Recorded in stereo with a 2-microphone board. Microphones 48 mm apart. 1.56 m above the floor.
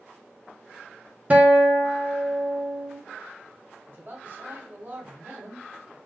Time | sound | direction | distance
1.3 | a guitar | 30° right (ahead or behind) | 0.7 m
3.9 | a man speaking | 45° right (ahead or behind) | 1.4 m